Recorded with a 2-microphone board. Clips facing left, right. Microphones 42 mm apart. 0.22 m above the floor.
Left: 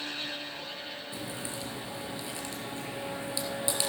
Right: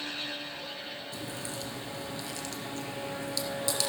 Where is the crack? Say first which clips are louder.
Left 1 dB; 20° left (ahead or behind), 1.8 m.